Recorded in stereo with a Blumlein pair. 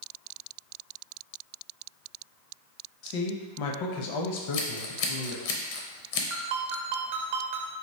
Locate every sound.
3.0 s a man speaking: 45° left, 0.7 m
4.4 s scissors: 50° left, 0.6 m
6.3 s a ringtone: 55° right, 0.8 m